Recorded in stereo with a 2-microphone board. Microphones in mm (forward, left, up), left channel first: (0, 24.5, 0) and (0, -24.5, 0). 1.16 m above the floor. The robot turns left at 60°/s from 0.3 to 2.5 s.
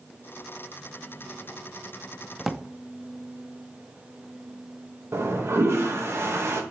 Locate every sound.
2.4 s a drawer: 5° right (ahead or behind), 0.5 m
5.1 s a toilet flushing: 55° right (ahead or behind), 1.4 m